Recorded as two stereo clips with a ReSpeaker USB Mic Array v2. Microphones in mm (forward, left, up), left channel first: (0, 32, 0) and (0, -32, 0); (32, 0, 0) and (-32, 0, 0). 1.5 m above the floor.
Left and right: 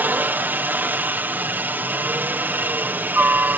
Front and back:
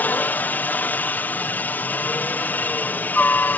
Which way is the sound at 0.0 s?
45° right.